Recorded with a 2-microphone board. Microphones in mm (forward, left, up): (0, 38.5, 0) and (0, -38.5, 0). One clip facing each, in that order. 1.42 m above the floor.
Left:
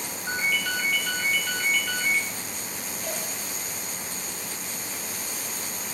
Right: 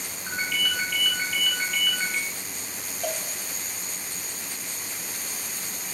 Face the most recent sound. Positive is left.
turn(degrees=-80)